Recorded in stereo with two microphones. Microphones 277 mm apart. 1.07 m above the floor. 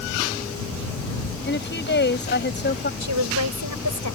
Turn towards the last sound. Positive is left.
turn(degrees=-85)